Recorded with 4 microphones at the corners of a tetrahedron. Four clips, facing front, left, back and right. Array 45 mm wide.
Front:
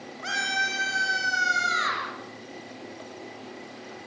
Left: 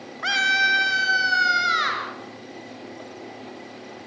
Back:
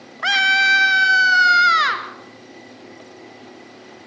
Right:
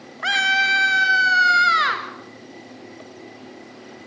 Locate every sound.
0.2 s a scream: 165° right, 2.5 m; by 2.1 s 150° right, 4.5 m